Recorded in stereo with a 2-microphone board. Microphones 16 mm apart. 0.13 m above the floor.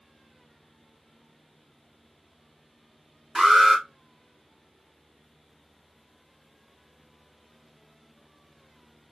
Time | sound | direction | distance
3.4 | an alarm | 25° right (ahead or behind) | 2 m